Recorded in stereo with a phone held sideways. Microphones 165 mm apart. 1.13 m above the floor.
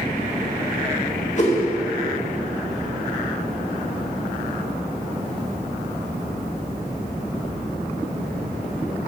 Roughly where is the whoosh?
Left.